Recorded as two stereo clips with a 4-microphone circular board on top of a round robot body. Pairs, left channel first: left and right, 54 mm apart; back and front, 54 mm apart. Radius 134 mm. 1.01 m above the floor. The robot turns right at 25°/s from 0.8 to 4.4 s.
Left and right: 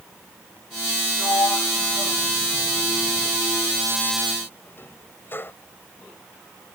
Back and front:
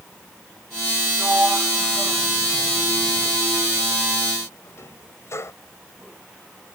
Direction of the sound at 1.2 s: 65° left.